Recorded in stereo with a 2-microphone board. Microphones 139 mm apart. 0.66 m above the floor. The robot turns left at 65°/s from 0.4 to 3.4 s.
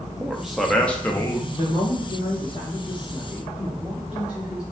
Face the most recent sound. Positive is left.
turn(degrees=-10)